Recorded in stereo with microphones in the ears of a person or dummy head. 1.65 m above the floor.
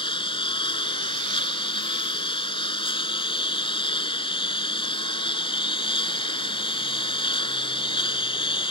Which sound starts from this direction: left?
A lawn mower, at 0.0 s.